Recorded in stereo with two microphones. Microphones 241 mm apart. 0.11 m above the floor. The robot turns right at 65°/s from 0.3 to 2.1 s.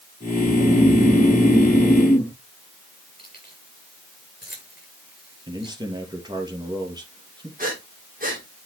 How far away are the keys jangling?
About 9 m.